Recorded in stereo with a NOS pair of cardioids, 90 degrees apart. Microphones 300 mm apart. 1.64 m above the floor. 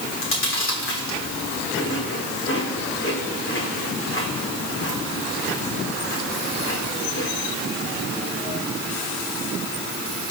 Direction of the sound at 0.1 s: 45° left.